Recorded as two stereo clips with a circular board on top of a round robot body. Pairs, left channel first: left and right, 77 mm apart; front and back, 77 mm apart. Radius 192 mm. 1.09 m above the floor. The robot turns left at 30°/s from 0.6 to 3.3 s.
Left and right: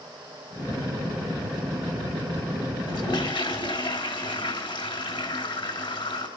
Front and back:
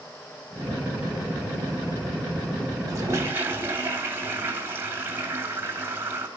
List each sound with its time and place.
2.9 s a toilet flushing: 130° left, 2.5 m; by 6.3 s 115° left, 2.5 m